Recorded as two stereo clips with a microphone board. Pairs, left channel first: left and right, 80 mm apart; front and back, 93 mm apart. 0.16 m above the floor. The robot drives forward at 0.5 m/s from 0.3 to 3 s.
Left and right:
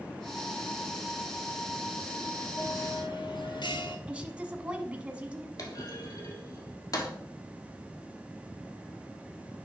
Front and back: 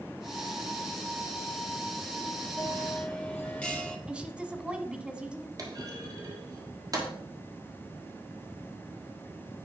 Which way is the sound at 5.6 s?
130° left.